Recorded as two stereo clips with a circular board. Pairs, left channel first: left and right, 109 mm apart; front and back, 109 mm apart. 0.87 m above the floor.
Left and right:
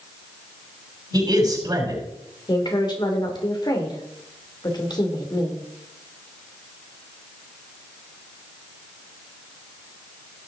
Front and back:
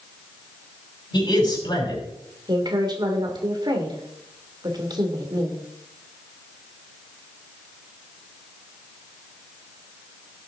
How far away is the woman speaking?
About 2.5 m.